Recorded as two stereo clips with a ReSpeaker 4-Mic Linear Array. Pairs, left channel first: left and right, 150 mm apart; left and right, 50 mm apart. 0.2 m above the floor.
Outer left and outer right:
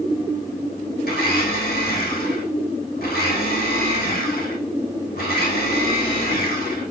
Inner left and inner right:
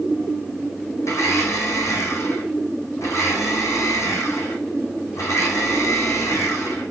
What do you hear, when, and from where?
1.1 s a blender: 85° left, 3.5 m